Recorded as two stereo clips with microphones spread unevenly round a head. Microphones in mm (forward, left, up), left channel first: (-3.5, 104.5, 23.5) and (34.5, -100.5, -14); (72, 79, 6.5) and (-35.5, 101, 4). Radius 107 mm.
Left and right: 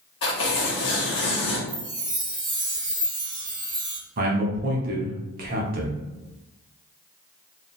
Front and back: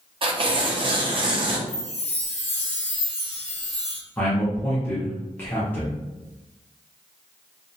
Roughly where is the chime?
Ahead.